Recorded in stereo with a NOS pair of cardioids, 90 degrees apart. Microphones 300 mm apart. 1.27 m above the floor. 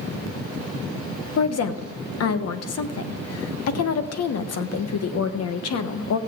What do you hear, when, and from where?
1.4 s a woman speaking: 60° left, 1.2 m